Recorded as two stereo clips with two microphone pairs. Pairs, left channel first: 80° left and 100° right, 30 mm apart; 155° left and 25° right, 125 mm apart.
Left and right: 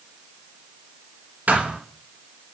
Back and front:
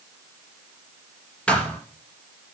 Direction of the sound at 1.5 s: 125° right.